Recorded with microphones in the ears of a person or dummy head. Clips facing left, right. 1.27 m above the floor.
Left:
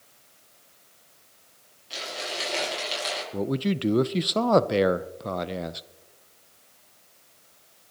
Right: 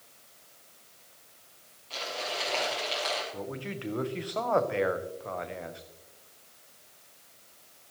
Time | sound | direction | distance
1.9 | crumpling | 15° left (ahead or behind) | 7 m
3.3 | a man speaking | 50° left (ahead or behind) | 0.6 m